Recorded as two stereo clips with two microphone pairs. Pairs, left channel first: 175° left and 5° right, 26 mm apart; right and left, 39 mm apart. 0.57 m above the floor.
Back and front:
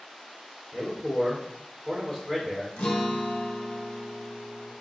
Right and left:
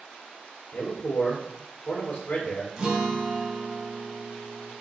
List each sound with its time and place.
0.7 s a man speaking: 95° right, 2 m
2.8 s a guitar: 160° left, 1.0 m